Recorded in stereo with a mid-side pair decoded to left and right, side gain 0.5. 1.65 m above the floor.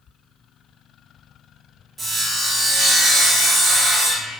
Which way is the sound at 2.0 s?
35° right.